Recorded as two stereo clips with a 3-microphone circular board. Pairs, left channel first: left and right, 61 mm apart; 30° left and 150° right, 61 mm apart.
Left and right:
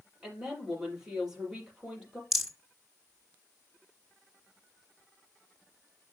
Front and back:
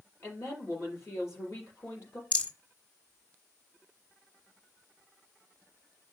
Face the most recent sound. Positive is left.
turn(degrees=-10)